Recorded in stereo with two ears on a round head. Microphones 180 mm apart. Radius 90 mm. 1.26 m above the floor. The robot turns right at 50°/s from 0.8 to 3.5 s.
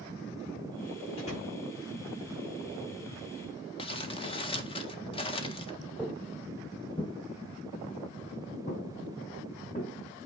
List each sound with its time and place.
1.2 s a door slam: 30° left (ahead or behind), 5.5 m; by 1.6 s 50° left (ahead or behind), 5.5 m
3.8 s crumpling: 25° left (ahead or behind), 1.6 m
6.0 s footsteps: 5° left (ahead or behind), 1.6 m; by 9.9 s 35° left (ahead or behind), 3 m